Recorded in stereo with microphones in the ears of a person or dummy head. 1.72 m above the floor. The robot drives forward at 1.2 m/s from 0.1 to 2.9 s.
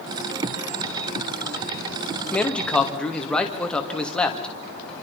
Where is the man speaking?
10° left (ahead or behind), 1.8 m.